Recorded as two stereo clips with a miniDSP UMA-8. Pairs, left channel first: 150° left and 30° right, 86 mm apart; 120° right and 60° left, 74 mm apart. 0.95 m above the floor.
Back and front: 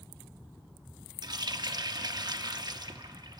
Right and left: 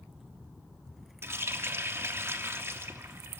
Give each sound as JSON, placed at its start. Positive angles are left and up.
{"t": 1.2, "sound": "a running tap", "azimuth_deg": 5, "distance_m": 0.9}